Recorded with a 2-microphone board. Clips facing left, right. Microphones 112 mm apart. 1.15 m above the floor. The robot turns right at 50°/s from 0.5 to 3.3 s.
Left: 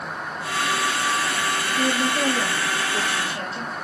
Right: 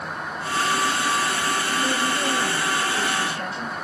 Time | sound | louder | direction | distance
1.8 | a woman speaking | left 2 dB | 70° left | 2.5 m